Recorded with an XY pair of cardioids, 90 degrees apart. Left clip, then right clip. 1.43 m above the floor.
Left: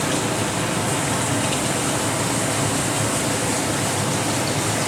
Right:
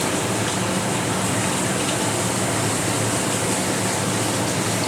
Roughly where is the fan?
Ahead.